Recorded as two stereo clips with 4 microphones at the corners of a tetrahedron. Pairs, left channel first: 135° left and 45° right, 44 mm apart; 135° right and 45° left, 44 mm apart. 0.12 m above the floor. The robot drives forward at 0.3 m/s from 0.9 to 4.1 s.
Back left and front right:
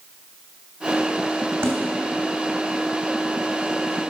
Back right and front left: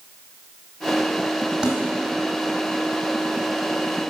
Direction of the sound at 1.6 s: 35° right.